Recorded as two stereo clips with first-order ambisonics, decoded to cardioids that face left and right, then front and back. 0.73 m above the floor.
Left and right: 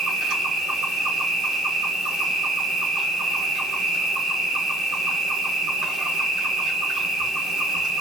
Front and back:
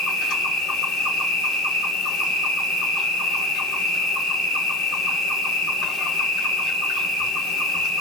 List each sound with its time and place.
0.0 s an insect: 45° right, 1.4 m